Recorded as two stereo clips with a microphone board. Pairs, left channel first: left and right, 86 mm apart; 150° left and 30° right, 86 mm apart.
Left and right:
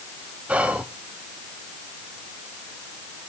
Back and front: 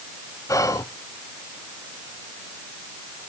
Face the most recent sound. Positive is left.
turn(degrees=-165)